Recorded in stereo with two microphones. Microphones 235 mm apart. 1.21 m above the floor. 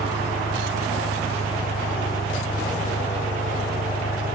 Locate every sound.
0.0 s an engine running: 85° left